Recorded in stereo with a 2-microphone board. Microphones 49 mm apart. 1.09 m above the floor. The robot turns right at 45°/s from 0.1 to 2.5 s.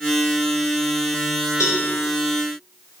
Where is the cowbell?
85° left, 3.5 m; by 1.9 s 75° left (ahead or behind), 3.5 m.